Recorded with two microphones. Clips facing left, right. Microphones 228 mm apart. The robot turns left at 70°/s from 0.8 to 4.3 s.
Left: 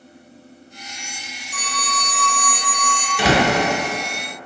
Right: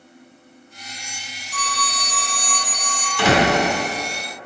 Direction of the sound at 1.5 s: 170° left.